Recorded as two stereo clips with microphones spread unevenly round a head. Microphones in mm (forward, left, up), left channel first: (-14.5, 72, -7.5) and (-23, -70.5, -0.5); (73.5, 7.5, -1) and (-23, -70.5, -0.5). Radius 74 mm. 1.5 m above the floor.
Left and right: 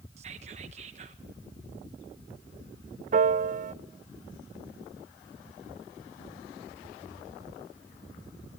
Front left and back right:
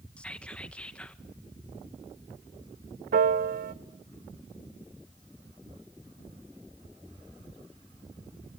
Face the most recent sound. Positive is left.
turn(degrees=-130)